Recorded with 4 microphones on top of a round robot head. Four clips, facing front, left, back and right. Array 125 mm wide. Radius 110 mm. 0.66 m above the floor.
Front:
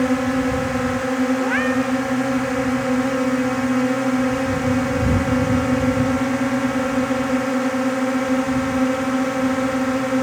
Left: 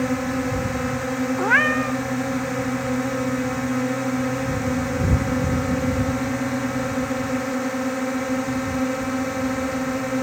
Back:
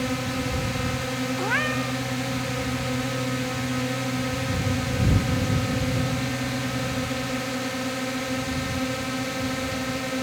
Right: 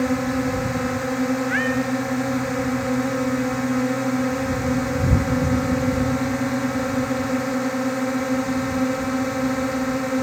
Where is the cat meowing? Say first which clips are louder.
Left 2 dB, front 7 dB; 95° left.